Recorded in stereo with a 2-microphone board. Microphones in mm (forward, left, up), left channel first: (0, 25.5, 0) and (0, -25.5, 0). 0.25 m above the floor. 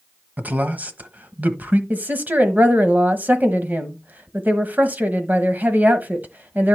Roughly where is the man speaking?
Right.